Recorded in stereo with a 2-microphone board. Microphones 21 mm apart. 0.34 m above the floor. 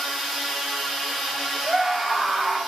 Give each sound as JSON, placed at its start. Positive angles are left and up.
{"t": 1.6, "sound": "a scream", "side_deg": -25, "distance_m": 3.0}